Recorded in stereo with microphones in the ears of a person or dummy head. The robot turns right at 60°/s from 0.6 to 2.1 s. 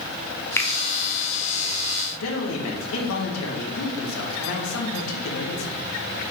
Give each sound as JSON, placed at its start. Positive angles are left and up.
{"t": 0.6, "sound": "a finger snap", "side_deg": 15, "distance_m": 0.6}
{"t": 2.2, "sound": "a man speaking", "side_deg": 80, "distance_m": 1.3}